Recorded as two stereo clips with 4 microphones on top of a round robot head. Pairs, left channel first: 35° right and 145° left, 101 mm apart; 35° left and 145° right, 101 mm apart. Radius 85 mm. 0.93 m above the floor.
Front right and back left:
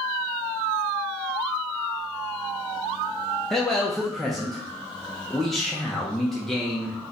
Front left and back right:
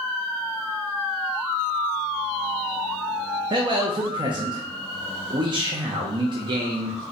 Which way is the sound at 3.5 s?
125° right.